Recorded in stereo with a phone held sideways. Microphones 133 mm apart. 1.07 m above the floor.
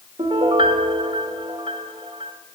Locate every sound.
0.2 s a piano: 45° right (ahead or behind), 1.2 m